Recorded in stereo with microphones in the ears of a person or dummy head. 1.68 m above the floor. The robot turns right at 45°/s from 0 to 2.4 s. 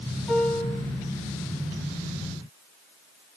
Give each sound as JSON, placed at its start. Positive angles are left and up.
{"t": 0.3, "sound": "a piano", "side_deg": 0, "distance_m": 8.0}